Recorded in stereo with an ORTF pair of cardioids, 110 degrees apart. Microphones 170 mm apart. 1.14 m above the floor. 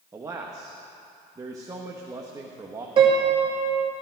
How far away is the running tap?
No running tap in this recording.